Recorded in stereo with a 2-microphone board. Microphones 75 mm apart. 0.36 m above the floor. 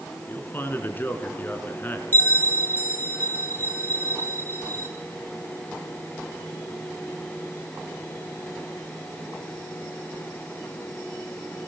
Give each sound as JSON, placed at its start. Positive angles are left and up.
{"t": 0.3, "sound": "a man speaking", "side_deg": 30, "distance_m": 3.5}
{"t": 2.1, "sound": "a bell", "side_deg": 30, "distance_m": 2.0}